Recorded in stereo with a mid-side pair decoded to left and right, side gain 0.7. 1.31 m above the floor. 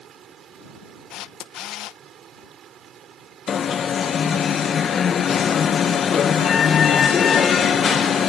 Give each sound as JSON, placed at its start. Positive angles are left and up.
{"t": 0.0, "sound": "running water", "azimuth_deg": -40}
{"t": 1.1, "sound": "a camera shutter", "azimuth_deg": 55}
{"t": 3.5, "sound": "an alarm", "azimuth_deg": 35}